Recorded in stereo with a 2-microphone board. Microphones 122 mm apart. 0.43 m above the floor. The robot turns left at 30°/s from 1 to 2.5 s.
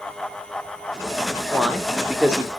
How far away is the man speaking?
About 0.8 m.